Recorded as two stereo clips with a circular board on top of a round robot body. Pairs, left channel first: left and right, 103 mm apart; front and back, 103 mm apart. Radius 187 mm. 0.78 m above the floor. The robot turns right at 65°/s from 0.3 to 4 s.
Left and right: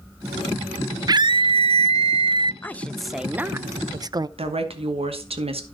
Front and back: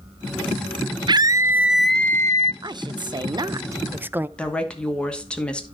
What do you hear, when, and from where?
1.1 s a scream: 140° right, 0.6 m; by 2.5 s 45° right, 0.6 m
2.6 s a woman speaking: 155° left, 0.6 m; by 4.3 s 120° right, 0.6 m
4.4 s a woman speaking: 80° right, 2.5 m